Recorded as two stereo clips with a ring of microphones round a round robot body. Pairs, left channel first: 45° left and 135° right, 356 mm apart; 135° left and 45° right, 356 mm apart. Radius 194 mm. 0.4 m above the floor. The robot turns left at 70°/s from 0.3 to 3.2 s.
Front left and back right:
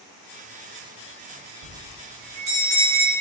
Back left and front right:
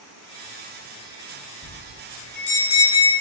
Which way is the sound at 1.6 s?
140° right.